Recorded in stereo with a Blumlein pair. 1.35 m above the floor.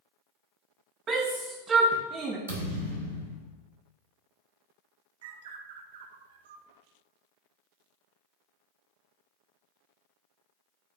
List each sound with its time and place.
1.1 s a shout: 30° right, 0.8 m
2.5 s a thud: 70° right, 2 m
5.2 s a bird: 55° right, 0.5 m